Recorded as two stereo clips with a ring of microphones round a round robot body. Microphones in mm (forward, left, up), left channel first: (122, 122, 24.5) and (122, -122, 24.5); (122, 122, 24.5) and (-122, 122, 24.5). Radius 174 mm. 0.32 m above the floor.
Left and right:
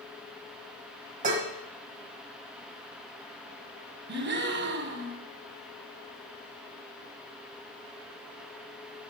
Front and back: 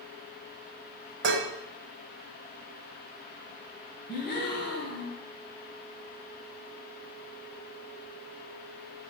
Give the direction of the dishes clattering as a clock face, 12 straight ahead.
5 o'clock.